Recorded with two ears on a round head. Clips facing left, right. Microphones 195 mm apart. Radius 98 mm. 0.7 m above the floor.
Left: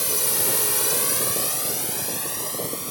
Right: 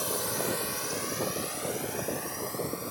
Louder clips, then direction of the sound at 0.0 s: Left 2 dB; 35° left (ahead or behind).